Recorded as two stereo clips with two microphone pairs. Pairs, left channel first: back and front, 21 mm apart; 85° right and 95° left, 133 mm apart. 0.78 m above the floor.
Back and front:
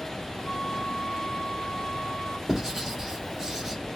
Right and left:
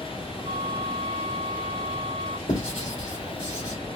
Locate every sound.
0.5 s a flute: 125° left, 0.8 m
2.5 s writing: 70° right, 2.5 m